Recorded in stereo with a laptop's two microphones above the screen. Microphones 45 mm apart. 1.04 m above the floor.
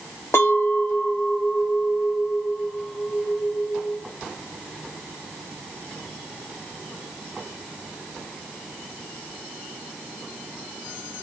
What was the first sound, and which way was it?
A clink, 80° left.